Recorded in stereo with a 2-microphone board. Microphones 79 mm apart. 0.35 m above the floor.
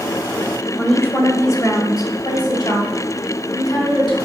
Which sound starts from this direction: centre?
A woman speaking, at 0.8 s.